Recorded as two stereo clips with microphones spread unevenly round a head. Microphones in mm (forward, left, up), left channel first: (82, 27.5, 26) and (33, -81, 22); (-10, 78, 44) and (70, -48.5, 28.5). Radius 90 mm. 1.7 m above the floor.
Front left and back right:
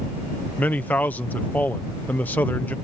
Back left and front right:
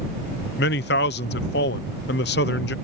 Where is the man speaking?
145° left.